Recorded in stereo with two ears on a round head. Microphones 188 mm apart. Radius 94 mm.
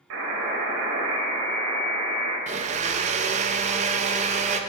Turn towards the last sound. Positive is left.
turn(degrees=-35)  # may be behind; listen again after turning